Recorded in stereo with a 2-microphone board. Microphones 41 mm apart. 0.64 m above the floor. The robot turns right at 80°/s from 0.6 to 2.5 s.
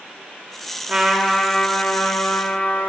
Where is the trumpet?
30° right, 1.2 m; by 2.9 s 100° left, 1.2 m.